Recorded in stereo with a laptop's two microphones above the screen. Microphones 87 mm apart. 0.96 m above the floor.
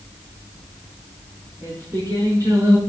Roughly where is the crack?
I don't hear a crack.